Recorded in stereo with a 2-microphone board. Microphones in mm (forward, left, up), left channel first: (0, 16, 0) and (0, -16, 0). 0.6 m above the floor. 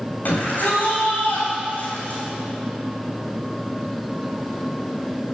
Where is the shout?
70° left (ahead or behind), 3 m.